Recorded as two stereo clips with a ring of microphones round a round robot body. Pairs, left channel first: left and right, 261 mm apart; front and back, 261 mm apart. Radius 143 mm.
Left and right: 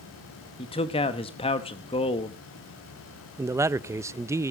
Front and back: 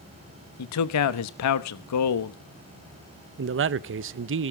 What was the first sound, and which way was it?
A man speaking, 20° left.